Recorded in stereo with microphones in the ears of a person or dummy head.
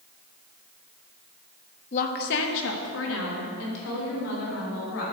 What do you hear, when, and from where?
1.9 s a woman speaking: 40° left (ahead or behind), 0.7 m; by 5.0 s 85° left, 5 m